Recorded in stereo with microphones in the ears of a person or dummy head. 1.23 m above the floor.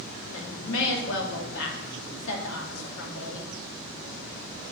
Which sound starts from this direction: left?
A woman speaking, at 0.3 s.